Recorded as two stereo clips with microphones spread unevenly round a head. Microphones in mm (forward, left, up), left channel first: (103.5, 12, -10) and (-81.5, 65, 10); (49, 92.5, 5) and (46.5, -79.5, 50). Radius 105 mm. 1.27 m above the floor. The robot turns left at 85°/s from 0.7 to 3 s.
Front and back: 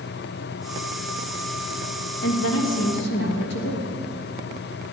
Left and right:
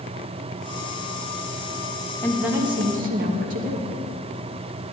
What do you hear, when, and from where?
2.2 s a woman speaking: 10° left, 1.3 m; by 4.0 s 55° right, 1.3 m